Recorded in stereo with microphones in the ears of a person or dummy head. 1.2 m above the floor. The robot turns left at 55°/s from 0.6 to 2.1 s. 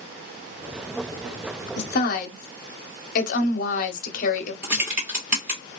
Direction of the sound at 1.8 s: 55° left (ahead or behind).